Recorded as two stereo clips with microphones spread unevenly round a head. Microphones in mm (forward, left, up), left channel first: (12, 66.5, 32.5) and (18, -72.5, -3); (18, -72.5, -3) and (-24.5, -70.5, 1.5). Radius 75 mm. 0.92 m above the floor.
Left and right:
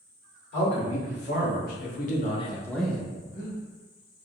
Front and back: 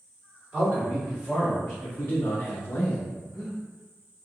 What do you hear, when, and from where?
0.5 s a man speaking: 85° left, 2.0 m; by 3.1 s 20° right, 0.7 m
3.2 s breathing: 110° left, 1.1 m